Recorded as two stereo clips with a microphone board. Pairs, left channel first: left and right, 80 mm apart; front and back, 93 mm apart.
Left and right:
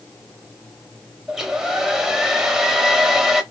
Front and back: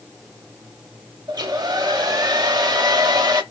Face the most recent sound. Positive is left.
turn(degrees=-175)